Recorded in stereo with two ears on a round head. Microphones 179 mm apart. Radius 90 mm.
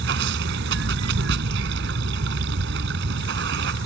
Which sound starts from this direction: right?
Running water, at 0.0 s.